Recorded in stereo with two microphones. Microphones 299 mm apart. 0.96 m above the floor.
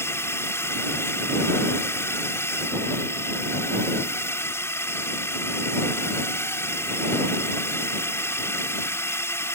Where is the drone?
10° left (ahead or behind).